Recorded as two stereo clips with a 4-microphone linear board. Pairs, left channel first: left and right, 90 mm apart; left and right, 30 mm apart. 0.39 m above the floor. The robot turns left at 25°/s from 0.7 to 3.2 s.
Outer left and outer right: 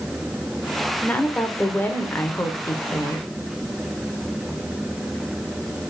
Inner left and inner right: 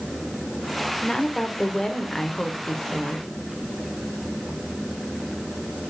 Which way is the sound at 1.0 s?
15° left (ahead or behind).